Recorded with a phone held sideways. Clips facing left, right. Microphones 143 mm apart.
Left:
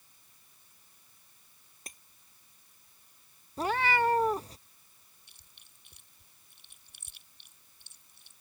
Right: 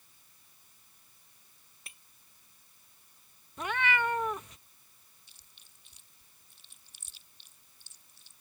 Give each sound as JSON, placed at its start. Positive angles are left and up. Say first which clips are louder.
{"t": 1.9, "sound": "breaking glass", "louder": "left 6 dB", "side_deg": 40}
{"t": 3.6, "sound": "a cat meowing", "louder": "left 4 dB", "side_deg": 35}
{"t": 5.3, "sound": "chewing", "louder": "left 1 dB", "side_deg": 60}